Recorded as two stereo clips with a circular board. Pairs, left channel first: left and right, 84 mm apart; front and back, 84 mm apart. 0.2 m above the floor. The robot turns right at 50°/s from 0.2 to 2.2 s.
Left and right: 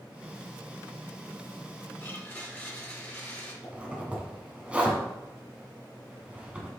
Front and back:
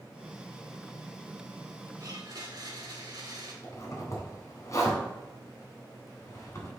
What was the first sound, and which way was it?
A blender, 145° left.